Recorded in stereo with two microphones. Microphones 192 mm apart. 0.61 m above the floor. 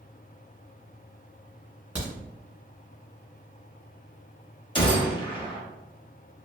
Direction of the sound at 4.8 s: 25° left (ahead or behind).